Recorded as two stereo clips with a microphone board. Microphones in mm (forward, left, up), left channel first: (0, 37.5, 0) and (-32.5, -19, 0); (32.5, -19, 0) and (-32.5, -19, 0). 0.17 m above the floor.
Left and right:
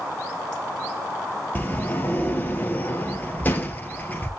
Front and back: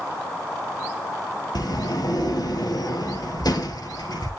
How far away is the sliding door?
About 1.9 m.